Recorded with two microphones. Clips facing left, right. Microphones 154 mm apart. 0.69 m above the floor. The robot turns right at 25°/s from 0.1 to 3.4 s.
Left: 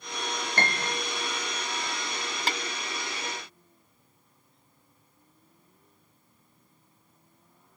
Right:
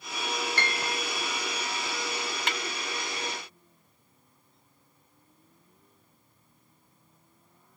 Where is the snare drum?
35° left (ahead or behind); by 2.6 s 30° left (ahead or behind).